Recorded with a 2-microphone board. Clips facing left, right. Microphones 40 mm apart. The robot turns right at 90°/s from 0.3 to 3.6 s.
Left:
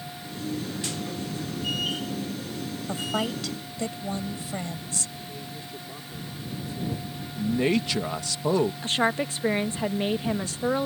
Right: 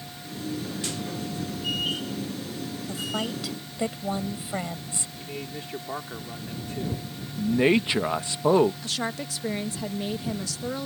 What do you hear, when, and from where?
2.9 s a woman speaking: 140° left; by 5.1 s 155° right
5.2 s a man speaking: 65° right (ahead or behind)
7.4 s a man speaking: 25° right (ahead or behind)
8.8 s a woman speaking: 35° left (ahead or behind)